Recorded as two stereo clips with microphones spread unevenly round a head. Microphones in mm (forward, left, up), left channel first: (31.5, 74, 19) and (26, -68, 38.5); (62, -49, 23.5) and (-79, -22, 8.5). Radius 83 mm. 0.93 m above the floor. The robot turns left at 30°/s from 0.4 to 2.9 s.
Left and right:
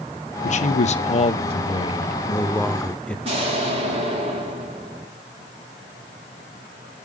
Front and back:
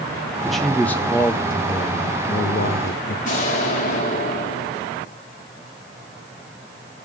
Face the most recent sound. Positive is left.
turn(degrees=-40)